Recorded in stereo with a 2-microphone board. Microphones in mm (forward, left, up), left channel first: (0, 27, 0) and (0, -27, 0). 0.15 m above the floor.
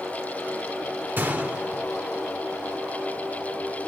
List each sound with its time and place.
1.2 s a gunshot: 35° right (ahead or behind), 1.3 m